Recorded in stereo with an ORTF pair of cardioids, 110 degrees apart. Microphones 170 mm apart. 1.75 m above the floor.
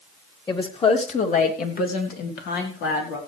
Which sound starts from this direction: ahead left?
A woman speaking, at 0.5 s.